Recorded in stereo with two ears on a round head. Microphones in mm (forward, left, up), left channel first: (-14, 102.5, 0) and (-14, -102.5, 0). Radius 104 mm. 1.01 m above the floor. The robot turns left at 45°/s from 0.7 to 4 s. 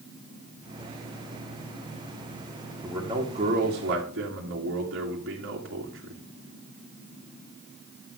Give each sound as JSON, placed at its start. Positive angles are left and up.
{"t": 2.8, "sound": "a man speaking", "azimuth_deg": -5, "distance_m": 2.5}